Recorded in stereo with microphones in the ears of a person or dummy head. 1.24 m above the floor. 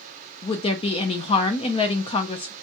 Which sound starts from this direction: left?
A woman speaking, at 0.4 s.